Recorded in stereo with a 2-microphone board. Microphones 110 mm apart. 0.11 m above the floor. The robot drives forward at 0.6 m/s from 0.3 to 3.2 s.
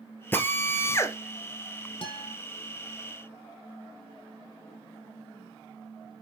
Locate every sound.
0.3 s a drill: 20° left (ahead or behind), 1.2 m; by 1.2 s 25° left (ahead or behind), 0.9 m
2.0 s a guitar: 55° left (ahead or behind), 1.5 m; by 2.4 s 60° left (ahead or behind), 1.4 m